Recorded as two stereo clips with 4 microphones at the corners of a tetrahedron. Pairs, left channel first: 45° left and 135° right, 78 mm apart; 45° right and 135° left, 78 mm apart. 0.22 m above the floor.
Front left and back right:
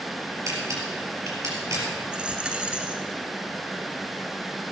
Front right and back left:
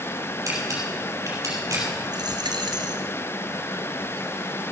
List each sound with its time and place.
0.5 s a camera shutter: straight behind, 4 m
2.1 s a dropped coin: 150° left, 1.3 m